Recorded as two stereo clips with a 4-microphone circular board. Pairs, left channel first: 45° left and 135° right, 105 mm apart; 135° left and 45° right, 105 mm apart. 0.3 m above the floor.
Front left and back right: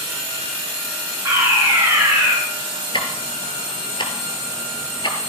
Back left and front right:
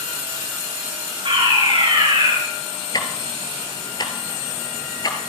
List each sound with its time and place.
1.2 s a fire alarm: 70° right, 6.5 m
2.9 s ticking: 85° left, 1.7 m